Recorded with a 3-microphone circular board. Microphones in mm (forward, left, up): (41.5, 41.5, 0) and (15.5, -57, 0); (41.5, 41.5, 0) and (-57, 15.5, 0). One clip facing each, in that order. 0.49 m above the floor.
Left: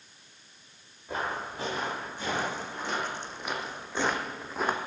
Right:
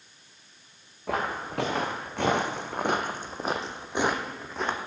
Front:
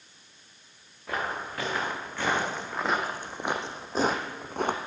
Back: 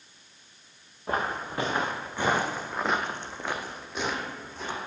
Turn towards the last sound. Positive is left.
turn(degrees=-5)